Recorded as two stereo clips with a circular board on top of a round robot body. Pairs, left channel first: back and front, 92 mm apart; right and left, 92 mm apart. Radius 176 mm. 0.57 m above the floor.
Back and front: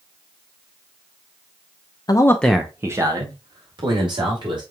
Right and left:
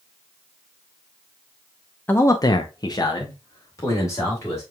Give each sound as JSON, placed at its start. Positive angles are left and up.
{"t": 2.1, "sound": "a man speaking", "azimuth_deg": -150, "distance_m": 0.9}